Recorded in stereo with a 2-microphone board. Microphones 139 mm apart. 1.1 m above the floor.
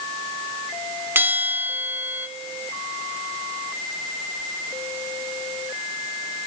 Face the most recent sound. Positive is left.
turn(degrees=-15)  # may be behind; listen again after turning